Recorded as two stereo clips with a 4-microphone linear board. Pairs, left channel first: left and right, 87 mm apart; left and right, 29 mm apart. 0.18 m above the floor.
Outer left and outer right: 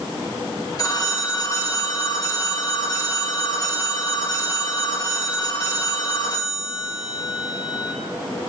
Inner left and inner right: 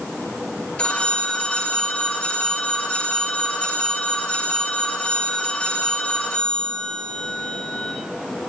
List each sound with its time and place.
0.8 s a phone ringing: 45° left (ahead or behind), 2.5 m